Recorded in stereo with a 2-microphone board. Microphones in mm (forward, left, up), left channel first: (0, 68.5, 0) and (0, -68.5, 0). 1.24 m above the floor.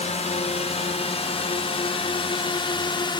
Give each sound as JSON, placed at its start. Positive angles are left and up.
{"t": 0.0, "sound": "a drone", "side_deg": 50}